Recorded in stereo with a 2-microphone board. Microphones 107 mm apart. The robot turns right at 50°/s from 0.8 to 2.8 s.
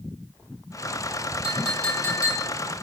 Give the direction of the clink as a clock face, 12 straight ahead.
12 o'clock.